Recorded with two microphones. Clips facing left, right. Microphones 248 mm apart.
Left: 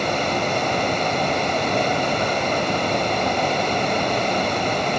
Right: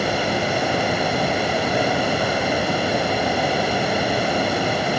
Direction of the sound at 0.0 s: 10° right (ahead or behind).